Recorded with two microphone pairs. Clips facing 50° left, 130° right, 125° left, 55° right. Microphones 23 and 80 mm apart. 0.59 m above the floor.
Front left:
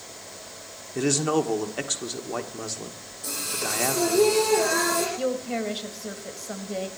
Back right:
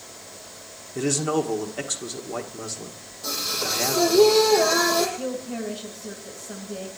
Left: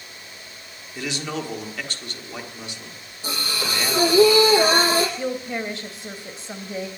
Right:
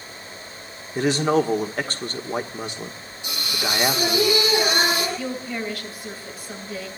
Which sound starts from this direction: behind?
Singing, at 3.2 s.